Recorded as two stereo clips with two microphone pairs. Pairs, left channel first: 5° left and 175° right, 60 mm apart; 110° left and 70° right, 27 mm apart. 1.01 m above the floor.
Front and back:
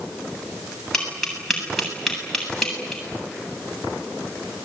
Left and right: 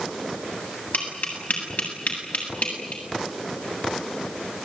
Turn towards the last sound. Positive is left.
turn(degrees=90)